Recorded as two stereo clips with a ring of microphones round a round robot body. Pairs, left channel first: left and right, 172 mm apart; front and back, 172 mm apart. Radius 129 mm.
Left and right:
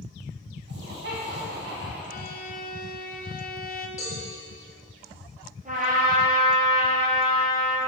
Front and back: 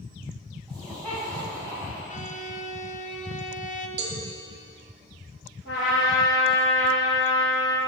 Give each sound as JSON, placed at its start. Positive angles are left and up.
{"t": 0.7, "sound": "laughter", "azimuth_deg": -90, "distance_m": 3.5}
{"t": 2.1, "sound": "a violin", "azimuth_deg": 50, "distance_m": 0.7}
{"t": 4.0, "sound": "a cowbell", "azimuth_deg": 165, "distance_m": 1.4}
{"t": 5.7, "sound": "a trumpet", "azimuth_deg": -45, "distance_m": 3.5}